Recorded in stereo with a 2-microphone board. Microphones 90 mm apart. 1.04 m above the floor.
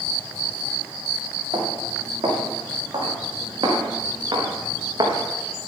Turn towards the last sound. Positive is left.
turn(degrees=-50)  # may be behind; listen again after turning